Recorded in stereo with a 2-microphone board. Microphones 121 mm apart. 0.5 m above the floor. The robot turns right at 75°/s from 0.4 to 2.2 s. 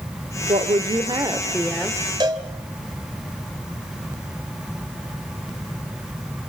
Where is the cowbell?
35° right (ahead or behind), 2.5 m.